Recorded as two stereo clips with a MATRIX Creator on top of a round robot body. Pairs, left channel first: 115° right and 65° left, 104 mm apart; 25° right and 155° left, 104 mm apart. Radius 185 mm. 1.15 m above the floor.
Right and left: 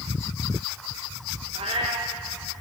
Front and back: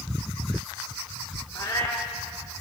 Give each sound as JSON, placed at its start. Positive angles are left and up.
{"t": 1.6, "sound": "a cat meowing", "azimuth_deg": 35, "distance_m": 0.5}